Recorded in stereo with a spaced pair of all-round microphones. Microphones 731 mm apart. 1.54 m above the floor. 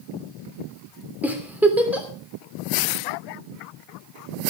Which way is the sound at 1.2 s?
Centre (ahead or behind).